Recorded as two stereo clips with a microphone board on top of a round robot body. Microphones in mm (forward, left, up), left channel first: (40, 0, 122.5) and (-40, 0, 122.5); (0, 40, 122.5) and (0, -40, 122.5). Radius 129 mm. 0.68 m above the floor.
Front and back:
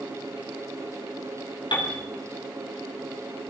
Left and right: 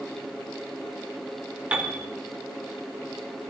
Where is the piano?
15° right, 3 m.